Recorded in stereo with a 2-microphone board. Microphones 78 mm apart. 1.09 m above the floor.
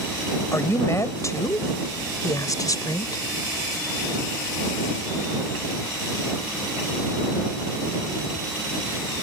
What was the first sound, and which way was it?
A woman speaking, 40° left (ahead or behind).